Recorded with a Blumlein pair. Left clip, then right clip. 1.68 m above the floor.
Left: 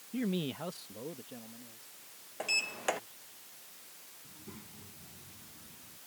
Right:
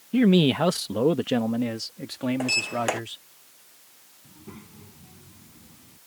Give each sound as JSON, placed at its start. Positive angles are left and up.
{"t": 0.1, "sound": "a man speaking", "azimuth_deg": -35}
{"t": 2.4, "sound": "a sliding door", "azimuth_deg": -20}
{"t": 4.2, "sound": "a child speaking", "azimuth_deg": -70}